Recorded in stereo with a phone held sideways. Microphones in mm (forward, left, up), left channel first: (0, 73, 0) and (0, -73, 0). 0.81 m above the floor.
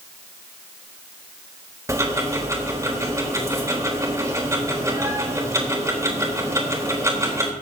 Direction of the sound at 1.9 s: 20° right (ahead or behind).